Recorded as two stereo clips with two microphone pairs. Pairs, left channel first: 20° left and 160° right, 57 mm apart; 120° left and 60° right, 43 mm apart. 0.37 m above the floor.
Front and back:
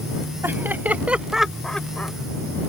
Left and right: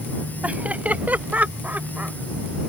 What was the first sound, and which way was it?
Laughter, 115° right.